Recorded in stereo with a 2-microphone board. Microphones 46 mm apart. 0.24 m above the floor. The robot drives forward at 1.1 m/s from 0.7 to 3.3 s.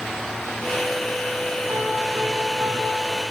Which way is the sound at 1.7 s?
70° right (ahead or behind).